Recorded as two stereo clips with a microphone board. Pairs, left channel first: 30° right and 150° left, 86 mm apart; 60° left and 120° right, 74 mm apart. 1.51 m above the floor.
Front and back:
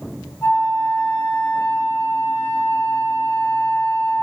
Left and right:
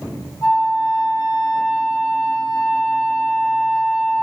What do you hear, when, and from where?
0.4 s a flute: 35° left, 0.8 m